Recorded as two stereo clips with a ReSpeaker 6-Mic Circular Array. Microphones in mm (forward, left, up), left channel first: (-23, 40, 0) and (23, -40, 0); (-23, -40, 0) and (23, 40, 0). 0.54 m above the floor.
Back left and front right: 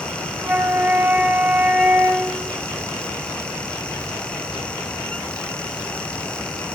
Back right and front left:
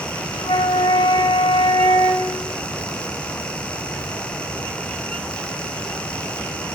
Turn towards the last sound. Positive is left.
turn(degrees=-130)